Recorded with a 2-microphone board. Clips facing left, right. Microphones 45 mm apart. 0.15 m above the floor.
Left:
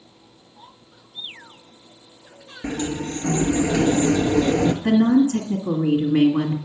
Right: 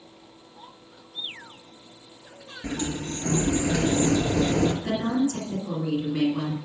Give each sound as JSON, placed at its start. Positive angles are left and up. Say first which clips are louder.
{"t": 2.6, "sound": "a sliding door", "louder": "left 4 dB", "side_deg": 30, "distance_m": 0.8}
{"t": 4.8, "sound": "a woman speaking", "louder": "left 8 dB", "side_deg": 45, "distance_m": 1.5}